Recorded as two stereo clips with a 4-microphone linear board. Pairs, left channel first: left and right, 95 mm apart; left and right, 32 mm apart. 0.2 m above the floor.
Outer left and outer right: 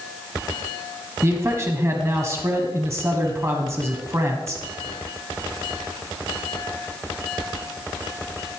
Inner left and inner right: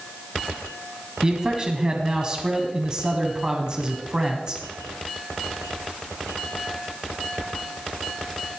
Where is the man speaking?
30° right (ahead or behind), 1.5 m.